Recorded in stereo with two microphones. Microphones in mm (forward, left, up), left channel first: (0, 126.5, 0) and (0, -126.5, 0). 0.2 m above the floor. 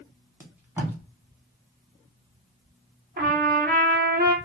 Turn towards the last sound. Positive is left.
turn(degrees=-40)  # may be behind; listen again after turning